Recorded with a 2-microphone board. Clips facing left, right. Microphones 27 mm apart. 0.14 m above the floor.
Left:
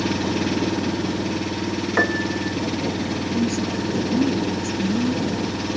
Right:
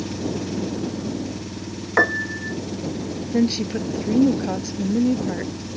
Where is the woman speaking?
55° right (ahead or behind).